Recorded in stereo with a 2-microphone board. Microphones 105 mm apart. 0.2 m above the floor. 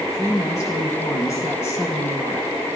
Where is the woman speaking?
30° left (ahead or behind), 2.5 m; by 2.6 s 25° left (ahead or behind), 1.6 m.